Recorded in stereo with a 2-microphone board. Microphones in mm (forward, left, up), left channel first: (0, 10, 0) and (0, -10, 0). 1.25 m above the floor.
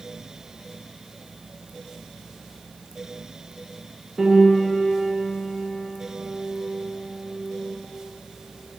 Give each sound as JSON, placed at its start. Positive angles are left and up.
{"t": 4.2, "sound": "a piano", "side_deg": -35, "distance_m": 2.5}